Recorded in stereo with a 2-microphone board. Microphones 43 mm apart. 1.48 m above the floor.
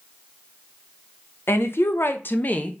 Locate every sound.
1.5 s a woman speaking: 65° left (ahead or behind), 0.7 m; by 2.7 s 30° left (ahead or behind), 0.6 m